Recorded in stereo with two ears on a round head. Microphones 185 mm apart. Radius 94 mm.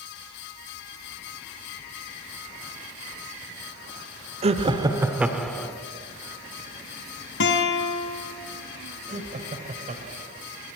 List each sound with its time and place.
4.4 s laughter: 30° right (ahead or behind), 1.5 m; by 5.8 s 10° left (ahead or behind), 1.4 m
7.4 s a guitar: 60° left (ahead or behind), 3 m
9.1 s laughter: 35° right (ahead or behind), 2.5 m